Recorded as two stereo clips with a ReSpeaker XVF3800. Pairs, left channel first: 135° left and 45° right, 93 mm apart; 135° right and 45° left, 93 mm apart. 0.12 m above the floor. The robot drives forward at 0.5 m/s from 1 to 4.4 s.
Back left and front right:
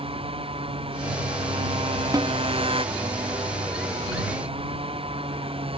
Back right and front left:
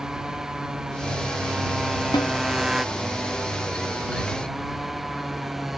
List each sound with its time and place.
0.0 s a motorcycle: 40° right; by 5.8 s 45° right
2.1 s a snare drum: 95° right